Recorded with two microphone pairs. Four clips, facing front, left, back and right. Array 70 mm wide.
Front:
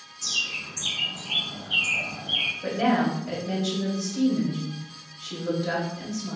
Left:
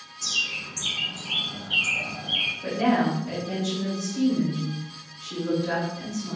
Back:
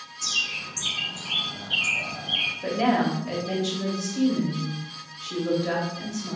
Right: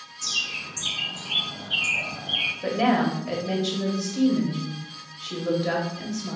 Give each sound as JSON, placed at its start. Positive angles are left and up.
{"t": 0.2, "sound": "a bird", "azimuth_deg": 160, "distance_m": 1.8}
{"t": 2.6, "sound": "a woman speaking", "azimuth_deg": -110, "distance_m": 0.9}